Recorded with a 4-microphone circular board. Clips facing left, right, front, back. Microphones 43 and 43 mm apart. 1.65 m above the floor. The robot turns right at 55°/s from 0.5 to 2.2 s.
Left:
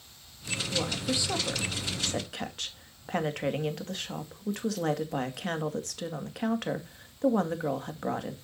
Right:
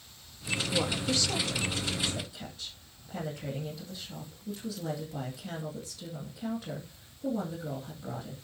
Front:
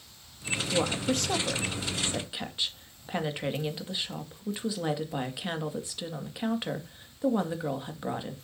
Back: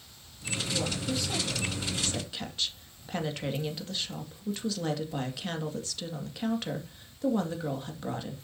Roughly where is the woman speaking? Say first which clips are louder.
Even, front 5 dB; ahead.